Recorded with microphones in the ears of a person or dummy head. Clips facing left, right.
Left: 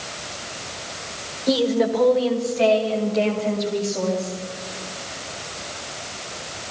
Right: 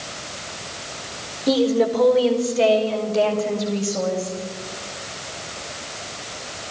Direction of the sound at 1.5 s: 35° right (ahead or behind).